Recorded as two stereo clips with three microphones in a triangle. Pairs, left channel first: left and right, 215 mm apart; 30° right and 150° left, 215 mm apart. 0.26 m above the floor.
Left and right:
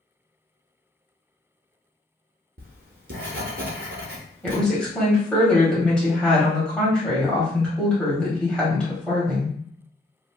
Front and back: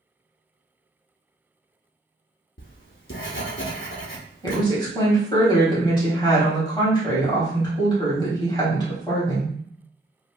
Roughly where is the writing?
Ahead right.